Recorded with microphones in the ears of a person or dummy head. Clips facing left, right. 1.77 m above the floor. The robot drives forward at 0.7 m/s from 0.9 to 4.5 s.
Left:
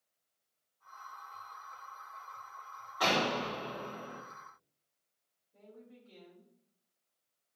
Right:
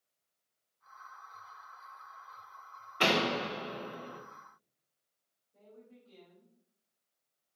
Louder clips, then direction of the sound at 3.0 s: Right 2 dB; 40° right (ahead or behind).